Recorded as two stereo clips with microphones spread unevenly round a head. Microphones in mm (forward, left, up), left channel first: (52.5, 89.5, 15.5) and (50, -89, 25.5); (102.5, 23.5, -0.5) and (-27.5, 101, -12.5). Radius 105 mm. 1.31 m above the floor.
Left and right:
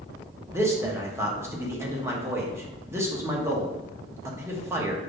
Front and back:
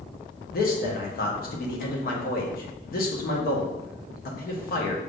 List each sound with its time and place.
0.5 s a man speaking: 15° right, 1.2 m